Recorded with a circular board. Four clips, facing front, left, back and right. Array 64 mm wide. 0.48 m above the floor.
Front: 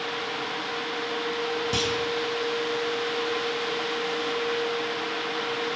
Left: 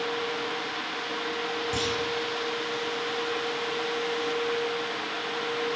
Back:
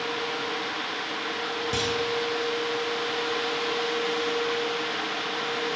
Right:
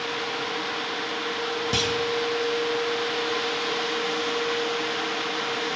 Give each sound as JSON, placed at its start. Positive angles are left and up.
{"t": 1.7, "sound": "a clunk", "azimuth_deg": -75, "distance_m": 2.5}